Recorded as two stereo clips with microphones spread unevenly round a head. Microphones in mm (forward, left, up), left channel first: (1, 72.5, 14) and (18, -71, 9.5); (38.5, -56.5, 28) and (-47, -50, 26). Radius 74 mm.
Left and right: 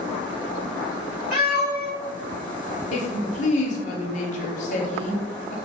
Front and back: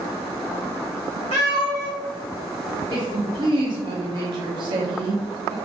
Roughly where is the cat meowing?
Ahead.